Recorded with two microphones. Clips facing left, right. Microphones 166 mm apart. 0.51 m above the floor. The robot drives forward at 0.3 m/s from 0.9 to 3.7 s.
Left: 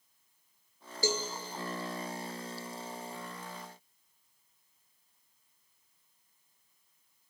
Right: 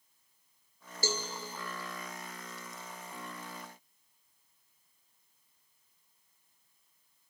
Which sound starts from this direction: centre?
A cowbell, at 1.0 s.